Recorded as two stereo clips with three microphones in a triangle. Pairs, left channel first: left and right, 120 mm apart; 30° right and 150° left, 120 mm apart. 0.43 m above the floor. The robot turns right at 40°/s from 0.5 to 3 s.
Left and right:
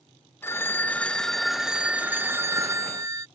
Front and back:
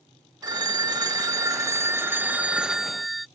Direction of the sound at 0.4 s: 140° left.